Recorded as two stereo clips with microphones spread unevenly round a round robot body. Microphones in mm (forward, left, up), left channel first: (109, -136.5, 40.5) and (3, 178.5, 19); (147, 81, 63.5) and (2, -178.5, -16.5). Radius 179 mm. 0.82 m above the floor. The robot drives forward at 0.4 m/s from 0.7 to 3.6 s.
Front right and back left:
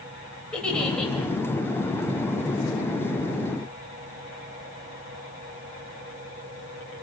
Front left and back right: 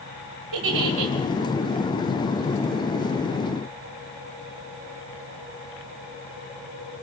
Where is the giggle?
160° right, 2.5 m.